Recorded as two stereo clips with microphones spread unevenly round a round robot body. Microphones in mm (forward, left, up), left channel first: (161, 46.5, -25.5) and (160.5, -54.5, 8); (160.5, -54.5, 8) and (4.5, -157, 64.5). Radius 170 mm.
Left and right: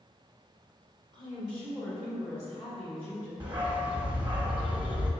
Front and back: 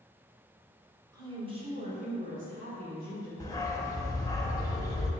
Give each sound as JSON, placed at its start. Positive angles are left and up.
{"t": 1.1, "sound": "a woman speaking", "azimuth_deg": -60, "distance_m": 0.9}
{"t": 3.4, "sound": "a dog barking", "azimuth_deg": -45, "distance_m": 0.7}